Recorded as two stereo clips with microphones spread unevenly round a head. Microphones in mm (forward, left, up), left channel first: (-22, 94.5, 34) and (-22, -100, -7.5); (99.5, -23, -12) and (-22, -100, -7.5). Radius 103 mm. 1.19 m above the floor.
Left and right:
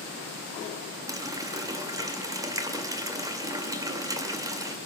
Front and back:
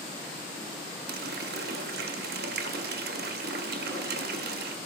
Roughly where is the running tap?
Behind.